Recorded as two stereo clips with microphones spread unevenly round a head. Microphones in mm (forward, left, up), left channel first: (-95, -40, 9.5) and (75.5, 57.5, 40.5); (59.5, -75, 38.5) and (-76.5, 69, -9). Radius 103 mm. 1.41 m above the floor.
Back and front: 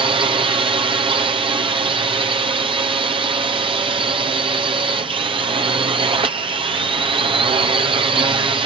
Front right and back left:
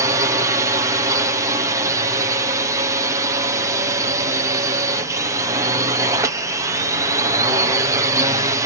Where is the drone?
90° left.